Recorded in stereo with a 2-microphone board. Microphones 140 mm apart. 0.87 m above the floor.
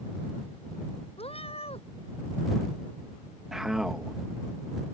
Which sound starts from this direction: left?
A cat meowing, at 1.2 s.